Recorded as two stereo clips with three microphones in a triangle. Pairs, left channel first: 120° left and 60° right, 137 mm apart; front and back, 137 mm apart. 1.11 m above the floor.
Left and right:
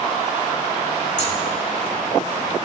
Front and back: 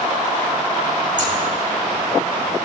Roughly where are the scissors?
Behind left.